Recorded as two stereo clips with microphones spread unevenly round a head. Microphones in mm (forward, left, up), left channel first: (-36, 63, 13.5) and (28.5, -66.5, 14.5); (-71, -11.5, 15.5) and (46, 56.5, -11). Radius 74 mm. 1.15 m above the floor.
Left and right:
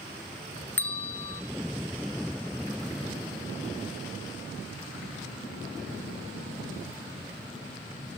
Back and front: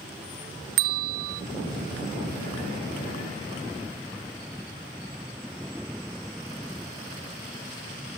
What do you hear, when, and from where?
0.8 s a bell: 40° left, 0.5 m